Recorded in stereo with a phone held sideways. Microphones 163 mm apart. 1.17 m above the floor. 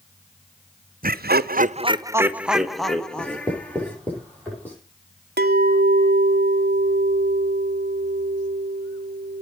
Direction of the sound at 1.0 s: 55° right (ahead or behind).